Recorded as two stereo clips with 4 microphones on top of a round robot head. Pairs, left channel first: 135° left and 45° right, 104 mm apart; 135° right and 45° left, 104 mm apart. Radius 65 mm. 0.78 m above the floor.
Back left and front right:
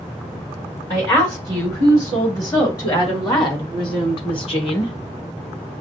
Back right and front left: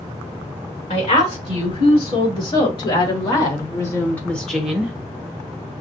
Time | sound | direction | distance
0.9 | a woman speaking | 160° right | 3 m